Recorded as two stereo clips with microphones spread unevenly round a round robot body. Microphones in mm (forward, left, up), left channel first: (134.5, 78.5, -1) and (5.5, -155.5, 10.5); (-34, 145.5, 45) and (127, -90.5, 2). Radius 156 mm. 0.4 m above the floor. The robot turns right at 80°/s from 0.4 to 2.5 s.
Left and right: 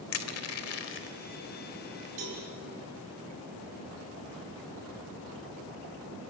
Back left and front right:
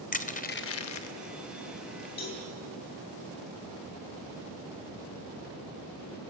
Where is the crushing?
60° left, 1.1 m; by 2.1 s 170° right, 1.1 m.